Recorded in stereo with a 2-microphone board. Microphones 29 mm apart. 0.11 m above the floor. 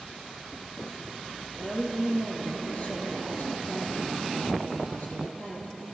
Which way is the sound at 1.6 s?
60° left (ahead or behind).